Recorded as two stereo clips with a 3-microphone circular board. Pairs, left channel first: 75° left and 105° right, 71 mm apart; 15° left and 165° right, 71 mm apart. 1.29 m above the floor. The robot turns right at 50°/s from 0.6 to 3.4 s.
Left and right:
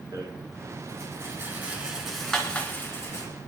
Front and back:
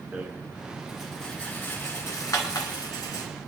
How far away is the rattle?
About 2.5 m.